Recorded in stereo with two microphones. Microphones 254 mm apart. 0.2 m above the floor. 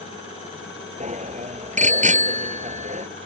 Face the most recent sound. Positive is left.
turn(degrees=-30)  # may be behind; listen again after turning